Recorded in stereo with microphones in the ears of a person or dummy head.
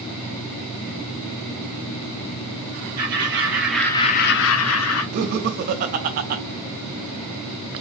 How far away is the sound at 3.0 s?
About 1.8 m.